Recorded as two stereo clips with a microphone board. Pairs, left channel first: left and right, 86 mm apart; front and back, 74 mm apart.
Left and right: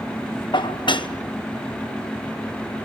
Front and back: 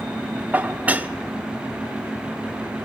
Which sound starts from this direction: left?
Dishes clattering, at 0.5 s.